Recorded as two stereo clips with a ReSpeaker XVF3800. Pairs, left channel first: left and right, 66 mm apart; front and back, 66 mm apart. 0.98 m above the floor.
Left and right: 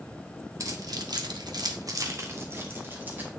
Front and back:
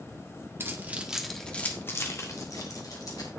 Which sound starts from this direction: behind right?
Keys jangling, at 0.6 s.